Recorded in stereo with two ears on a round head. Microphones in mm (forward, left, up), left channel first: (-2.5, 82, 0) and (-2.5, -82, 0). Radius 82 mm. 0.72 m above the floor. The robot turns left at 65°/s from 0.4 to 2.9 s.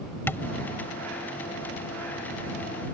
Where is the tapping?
15° left (ahead or behind); by 0.5 s 5° left (ahead or behind).